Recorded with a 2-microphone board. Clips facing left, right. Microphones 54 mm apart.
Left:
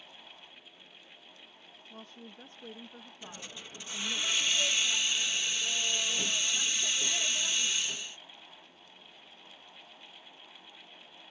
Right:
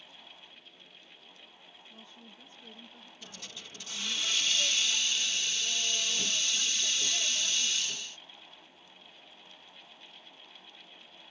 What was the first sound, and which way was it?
A woman speaking, 50° left (ahead or behind).